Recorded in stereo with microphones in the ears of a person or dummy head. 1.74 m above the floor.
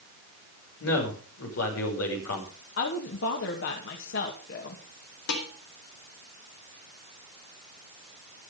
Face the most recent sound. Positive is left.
turn(degrees=65)  # may be behind; listen again after turning